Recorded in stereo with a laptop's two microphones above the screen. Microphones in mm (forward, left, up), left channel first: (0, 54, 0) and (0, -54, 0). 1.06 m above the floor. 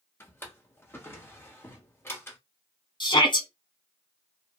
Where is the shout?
45° left (ahead or behind), 0.9 m.